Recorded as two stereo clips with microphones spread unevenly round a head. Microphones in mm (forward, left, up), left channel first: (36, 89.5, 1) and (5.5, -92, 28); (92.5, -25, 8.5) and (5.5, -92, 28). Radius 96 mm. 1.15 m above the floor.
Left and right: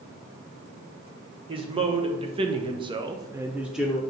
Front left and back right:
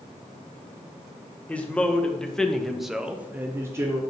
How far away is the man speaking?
About 1.4 m.